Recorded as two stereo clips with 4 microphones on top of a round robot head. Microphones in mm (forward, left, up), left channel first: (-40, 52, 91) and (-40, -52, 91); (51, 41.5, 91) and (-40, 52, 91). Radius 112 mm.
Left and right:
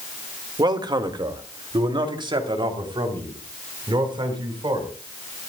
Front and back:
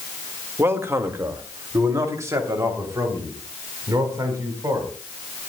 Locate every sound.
0.6 s a man speaking: 125° right, 1.5 m; by 4.9 s 130° right, 4.5 m